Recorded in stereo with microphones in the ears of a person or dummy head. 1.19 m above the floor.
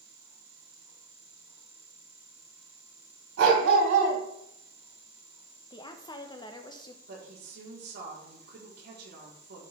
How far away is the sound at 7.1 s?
About 4 m.